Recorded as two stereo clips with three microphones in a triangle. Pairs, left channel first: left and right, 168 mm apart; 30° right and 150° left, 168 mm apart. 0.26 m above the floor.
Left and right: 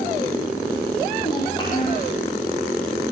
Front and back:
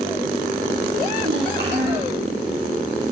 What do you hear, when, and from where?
1.2 s a child speaking: 155° left, 6 m